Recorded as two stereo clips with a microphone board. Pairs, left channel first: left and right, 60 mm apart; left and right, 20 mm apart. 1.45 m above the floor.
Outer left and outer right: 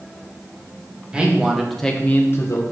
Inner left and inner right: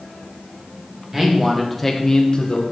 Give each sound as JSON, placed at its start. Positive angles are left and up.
{"t": 1.1, "sound": "a man speaking", "side_deg": -15, "distance_m": 1.7}